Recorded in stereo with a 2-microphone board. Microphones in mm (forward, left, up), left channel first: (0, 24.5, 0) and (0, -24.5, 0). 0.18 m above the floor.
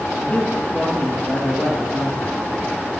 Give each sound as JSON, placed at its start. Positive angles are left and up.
{"t": 0.2, "sound": "a man speaking", "side_deg": 30, "distance_m": 1.8}